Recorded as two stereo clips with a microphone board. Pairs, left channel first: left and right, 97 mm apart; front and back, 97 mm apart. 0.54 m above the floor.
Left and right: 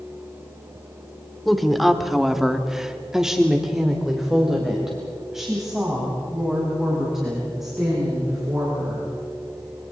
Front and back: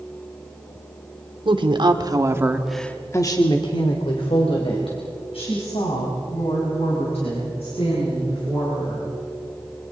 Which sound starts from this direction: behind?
A woman speaking, at 1.4 s.